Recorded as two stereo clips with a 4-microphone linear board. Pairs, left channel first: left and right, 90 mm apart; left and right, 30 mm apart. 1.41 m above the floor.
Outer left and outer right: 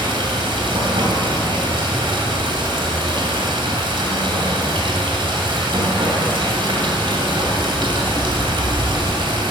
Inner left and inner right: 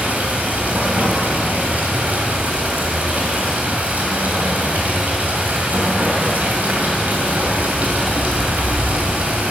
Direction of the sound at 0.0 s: 70° right (ahead or behind).